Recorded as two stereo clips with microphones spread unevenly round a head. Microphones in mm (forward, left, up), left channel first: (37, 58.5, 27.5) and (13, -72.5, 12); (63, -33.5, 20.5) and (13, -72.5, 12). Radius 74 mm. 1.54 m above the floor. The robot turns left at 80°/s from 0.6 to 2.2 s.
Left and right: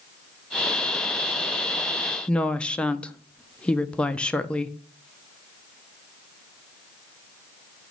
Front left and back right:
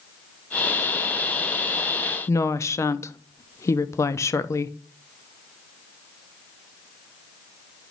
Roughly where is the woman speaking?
Ahead.